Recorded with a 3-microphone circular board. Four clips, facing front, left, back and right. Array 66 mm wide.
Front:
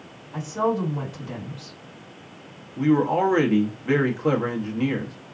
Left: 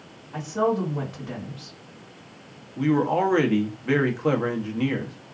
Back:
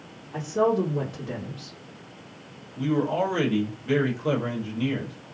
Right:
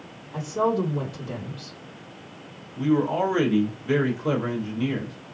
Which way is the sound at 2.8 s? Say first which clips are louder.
Left 1 dB, front 5 dB; 55° left.